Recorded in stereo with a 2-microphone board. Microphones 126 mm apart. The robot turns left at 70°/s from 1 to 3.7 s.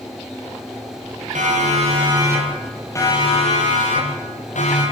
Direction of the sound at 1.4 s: 80° right.